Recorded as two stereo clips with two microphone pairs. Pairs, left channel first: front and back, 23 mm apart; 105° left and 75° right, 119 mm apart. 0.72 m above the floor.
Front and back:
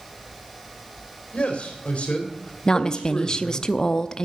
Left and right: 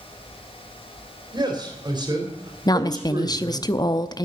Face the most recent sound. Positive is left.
turn(degrees=55)